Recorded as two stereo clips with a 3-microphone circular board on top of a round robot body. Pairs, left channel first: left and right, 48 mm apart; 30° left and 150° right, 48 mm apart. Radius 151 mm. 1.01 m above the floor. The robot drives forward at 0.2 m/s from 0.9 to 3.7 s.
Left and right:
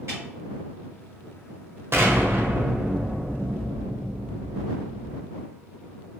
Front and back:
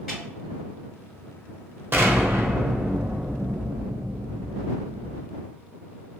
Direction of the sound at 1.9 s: 115° right.